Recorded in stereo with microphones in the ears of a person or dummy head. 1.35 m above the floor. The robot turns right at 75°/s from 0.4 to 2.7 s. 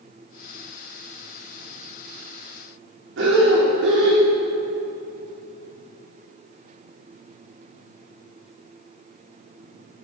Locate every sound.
3.2 s breathing: 70° right (ahead or behind), 3.5 m